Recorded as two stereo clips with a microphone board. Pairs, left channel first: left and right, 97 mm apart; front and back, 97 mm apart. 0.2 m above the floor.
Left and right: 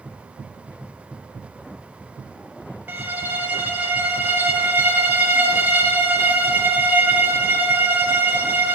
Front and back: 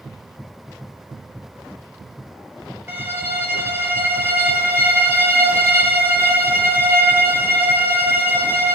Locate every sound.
2.9 s a violin: 140° right, 1.3 m